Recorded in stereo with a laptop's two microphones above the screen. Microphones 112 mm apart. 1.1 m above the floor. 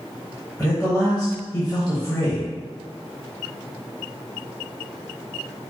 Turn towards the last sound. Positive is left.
turn(degrees=10)  # may be behind; listen again after turning